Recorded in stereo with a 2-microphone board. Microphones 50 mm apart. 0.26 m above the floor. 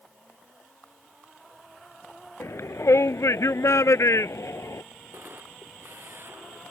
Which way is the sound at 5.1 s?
50° right (ahead or behind).